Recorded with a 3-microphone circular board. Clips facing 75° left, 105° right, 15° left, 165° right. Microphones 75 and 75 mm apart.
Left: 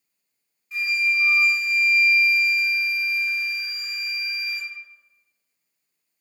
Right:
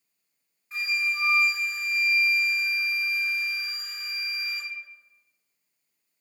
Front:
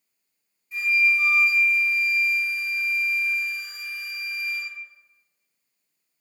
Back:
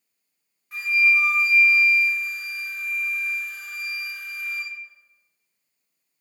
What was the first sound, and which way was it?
A flute, 155° right.